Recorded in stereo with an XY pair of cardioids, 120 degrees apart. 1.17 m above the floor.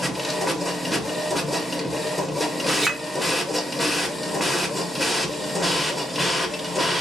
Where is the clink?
20° right, 0.8 m.